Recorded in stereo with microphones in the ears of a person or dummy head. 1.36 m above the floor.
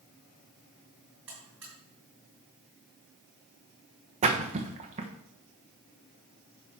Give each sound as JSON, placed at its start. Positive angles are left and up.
{"t": 1.3, "sound": "a buzzer", "side_deg": -10, "distance_m": 5.5}
{"t": 4.2, "sound": "a splash", "side_deg": -30, "distance_m": 1.2}